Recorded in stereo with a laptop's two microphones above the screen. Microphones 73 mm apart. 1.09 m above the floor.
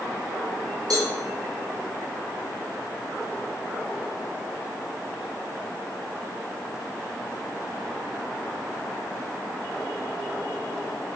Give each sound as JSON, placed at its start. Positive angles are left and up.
{"t": 0.9, "sound": "a cowbell", "side_deg": -60, "distance_m": 4.0}